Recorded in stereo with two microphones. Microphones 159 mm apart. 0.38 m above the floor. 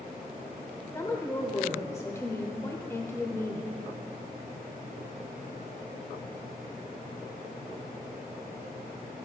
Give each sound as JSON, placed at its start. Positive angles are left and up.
{"t": 0.9, "sound": "a woman speaking", "side_deg": 20, "distance_m": 1.0}